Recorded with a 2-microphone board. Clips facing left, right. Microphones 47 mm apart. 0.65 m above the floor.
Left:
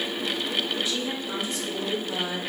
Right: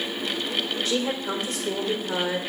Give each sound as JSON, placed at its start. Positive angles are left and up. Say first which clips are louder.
{"t": 0.8, "sound": "a woman speaking", "louder": "right 4 dB", "side_deg": -65, "distance_m": 2.0}